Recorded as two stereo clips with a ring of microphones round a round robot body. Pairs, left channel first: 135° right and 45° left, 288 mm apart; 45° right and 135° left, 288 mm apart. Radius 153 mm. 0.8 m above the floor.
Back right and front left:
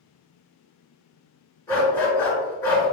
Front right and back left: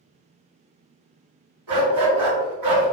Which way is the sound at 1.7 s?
145° left.